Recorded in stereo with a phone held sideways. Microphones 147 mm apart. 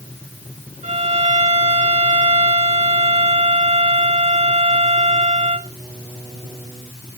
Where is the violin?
50° right (ahead or behind), 1.2 m.